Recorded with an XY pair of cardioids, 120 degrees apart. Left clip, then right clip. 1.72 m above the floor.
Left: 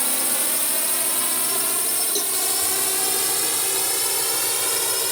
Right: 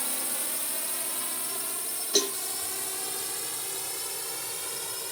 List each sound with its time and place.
0.0 s a drone: 45° left; by 5.1 s 60° left
2.1 s a cowbell: 30° right